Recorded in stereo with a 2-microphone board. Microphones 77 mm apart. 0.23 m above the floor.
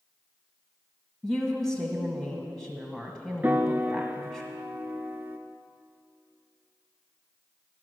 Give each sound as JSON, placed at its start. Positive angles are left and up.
{"t": 1.2, "sound": "a woman speaking", "side_deg": -5, "distance_m": 1.3}
{"t": 3.4, "sound": "a piano", "side_deg": -25, "distance_m": 0.5}